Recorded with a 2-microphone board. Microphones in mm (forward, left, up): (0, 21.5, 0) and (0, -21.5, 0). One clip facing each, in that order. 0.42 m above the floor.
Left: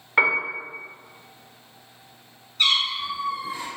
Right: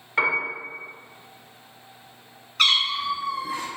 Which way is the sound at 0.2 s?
20° left (ahead or behind).